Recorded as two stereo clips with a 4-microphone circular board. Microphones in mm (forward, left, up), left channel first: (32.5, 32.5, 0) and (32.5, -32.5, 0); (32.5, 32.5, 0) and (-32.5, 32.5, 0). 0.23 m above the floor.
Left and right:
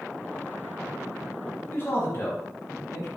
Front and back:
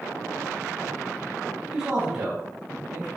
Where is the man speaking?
110° left, 1.4 m; by 3.1 s 105° left, 2.5 m.